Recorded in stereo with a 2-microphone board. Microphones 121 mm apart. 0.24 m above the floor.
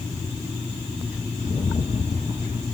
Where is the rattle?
75° left (ahead or behind), 1.5 m.